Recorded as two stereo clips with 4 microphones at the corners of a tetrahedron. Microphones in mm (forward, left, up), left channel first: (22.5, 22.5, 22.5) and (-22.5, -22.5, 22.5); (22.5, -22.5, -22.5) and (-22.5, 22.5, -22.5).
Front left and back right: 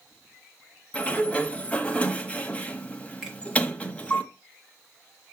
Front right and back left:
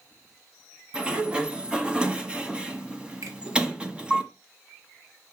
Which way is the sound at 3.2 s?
145° left.